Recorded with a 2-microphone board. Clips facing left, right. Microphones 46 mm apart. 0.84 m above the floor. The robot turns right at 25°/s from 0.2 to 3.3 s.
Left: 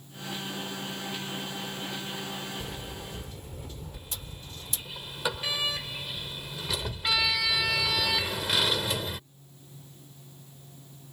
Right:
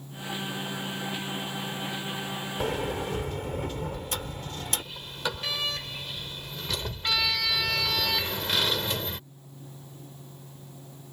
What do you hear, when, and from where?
2.6 s a sliding door: 80° right; by 4.8 s 65° right (ahead or behind)
3.9 s a sliding door: 10° left (ahead or behind)